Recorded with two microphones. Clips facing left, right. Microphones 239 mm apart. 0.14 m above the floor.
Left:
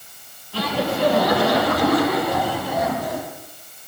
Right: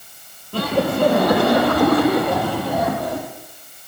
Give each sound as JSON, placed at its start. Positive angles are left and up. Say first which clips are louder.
{"t": 0.5, "sound": "laughter", "louder": "right 4 dB", "side_deg": -55, "distance_m": 5.5}